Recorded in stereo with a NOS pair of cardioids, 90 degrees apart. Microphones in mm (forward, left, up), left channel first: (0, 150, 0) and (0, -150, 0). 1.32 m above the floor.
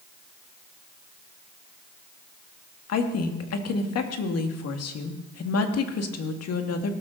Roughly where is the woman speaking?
Ahead left.